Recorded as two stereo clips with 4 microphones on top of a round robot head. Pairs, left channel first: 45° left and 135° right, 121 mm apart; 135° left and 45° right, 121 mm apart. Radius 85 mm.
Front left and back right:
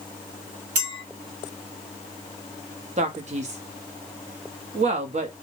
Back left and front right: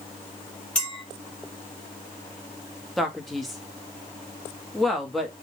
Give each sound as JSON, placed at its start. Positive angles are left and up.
{"t": 0.8, "sound": "a clink", "azimuth_deg": -145, "distance_m": 1.5}
{"t": 3.0, "sound": "a man speaking", "azimuth_deg": -135, "distance_m": 0.7}